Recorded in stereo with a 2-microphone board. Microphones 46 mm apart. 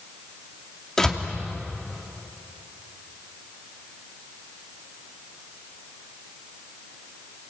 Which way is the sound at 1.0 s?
10° left (ahead or behind).